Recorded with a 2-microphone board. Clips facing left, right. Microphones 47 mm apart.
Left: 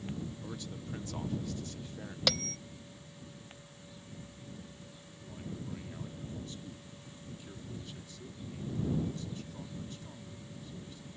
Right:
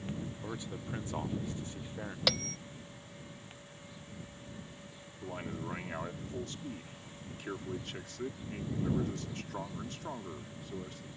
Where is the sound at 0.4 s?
25° right (ahead or behind).